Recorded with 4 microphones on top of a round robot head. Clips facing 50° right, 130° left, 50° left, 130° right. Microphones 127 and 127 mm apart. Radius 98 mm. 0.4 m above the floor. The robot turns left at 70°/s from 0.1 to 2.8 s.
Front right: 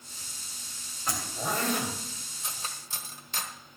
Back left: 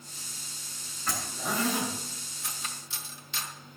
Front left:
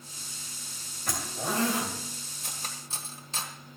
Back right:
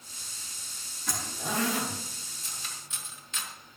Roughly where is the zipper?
Ahead left.